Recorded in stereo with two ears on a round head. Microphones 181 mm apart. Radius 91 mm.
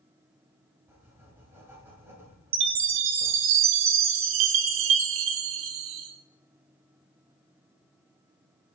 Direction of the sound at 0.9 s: 10° right (ahead or behind).